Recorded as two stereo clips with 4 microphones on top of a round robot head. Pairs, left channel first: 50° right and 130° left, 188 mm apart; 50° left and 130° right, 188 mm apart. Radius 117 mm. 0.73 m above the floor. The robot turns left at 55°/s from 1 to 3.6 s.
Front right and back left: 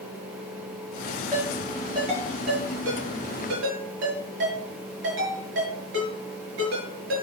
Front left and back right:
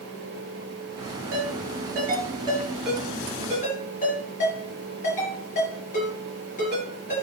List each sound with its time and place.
1.3 s a ringtone: 130° right, 6.5 m; by 7.2 s 105° left, 6.5 m